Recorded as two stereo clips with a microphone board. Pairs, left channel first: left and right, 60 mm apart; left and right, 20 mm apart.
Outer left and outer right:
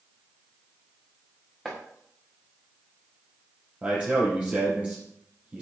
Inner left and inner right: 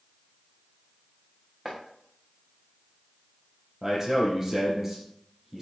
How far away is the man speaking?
About 5 m.